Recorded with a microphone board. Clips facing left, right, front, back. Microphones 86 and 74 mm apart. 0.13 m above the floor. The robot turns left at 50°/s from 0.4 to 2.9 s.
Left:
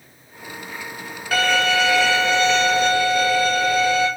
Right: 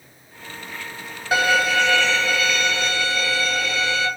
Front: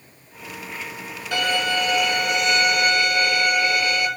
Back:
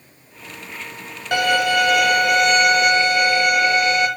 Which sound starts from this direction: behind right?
A violin, at 1.3 s.